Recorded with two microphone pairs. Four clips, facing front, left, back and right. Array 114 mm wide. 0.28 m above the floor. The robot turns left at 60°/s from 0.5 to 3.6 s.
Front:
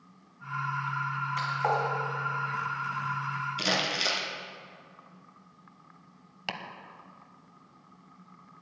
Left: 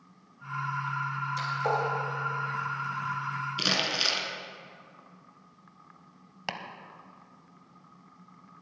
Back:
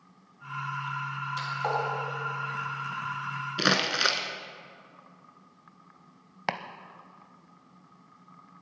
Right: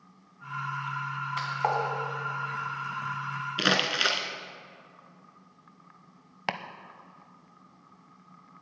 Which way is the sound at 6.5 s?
150° right.